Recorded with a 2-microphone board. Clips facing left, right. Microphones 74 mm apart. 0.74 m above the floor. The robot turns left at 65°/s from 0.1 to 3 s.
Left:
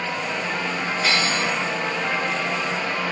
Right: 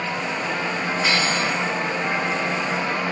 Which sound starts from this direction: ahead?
Cutlery clinking, at 1.0 s.